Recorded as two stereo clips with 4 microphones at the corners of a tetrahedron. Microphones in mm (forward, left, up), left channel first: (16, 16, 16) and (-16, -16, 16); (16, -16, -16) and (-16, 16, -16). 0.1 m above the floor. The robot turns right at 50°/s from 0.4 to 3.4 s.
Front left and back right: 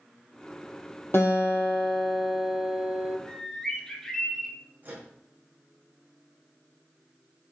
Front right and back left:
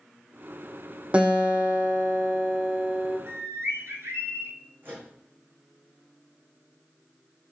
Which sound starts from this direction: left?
A guitar, at 1.1 s.